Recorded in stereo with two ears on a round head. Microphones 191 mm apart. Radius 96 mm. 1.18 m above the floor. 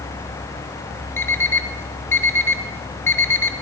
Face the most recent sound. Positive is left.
turn(degrees=10)  # may be behind; listen again after turning